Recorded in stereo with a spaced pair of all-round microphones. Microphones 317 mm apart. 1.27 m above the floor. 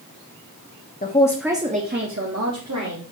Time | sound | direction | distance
1.0 | a man speaking | 25° left (ahead or behind) | 0.5 m